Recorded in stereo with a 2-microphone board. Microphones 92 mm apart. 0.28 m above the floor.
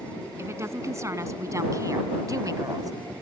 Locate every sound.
0.4 s a woman speaking: 30° right (ahead or behind); by 2.9 s 45° right (ahead or behind)